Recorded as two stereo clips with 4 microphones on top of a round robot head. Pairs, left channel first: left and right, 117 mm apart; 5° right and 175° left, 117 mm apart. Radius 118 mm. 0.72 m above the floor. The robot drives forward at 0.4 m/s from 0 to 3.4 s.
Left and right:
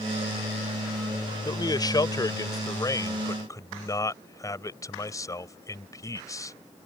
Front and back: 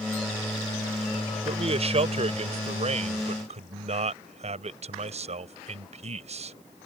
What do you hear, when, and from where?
1.4 s a man speaking: 145° left; by 6.6 s 150° left